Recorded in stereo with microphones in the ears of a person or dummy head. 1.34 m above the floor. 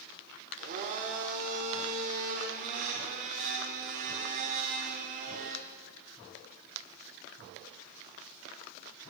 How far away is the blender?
About 1.2 m.